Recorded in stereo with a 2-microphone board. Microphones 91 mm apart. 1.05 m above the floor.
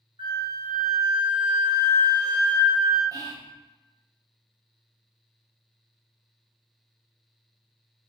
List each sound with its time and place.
0.2 s a flute: 70° right (ahead or behind), 0.8 m
3.1 s whispering: 40° right (ahead or behind), 0.7 m